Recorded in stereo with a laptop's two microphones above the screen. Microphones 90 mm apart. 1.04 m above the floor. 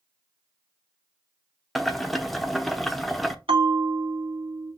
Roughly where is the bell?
Right.